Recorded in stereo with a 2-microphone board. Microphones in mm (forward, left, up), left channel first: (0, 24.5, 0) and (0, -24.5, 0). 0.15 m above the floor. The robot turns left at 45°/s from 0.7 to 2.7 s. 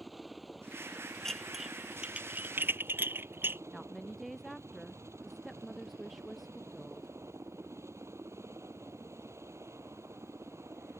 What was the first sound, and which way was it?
A helicopter, 5° right.